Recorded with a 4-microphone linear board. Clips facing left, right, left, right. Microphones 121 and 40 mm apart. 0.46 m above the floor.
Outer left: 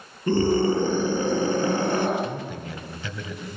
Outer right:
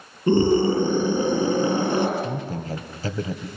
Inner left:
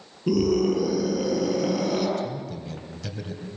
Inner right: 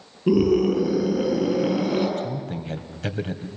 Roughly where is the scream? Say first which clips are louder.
Outer right 3 dB, inner right 3 dB; right.